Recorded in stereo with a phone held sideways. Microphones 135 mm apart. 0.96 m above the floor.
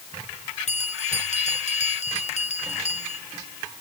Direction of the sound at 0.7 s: 55° left (ahead or behind).